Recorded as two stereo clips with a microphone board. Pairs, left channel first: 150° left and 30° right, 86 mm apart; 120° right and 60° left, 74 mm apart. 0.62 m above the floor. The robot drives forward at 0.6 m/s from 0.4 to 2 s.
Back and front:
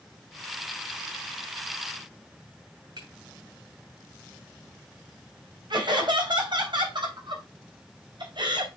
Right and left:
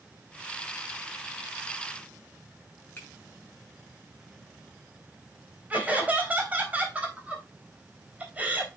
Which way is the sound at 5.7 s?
10° right.